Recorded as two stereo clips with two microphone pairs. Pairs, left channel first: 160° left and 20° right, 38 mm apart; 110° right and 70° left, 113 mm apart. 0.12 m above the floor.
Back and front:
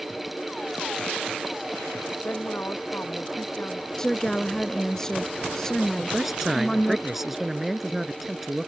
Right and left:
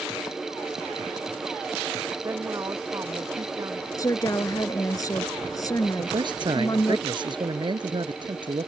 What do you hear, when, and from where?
2.2 s a woman speaking: 135° left
4.0 s a woman speaking: 135° right
6.0 s a man speaking: 55° left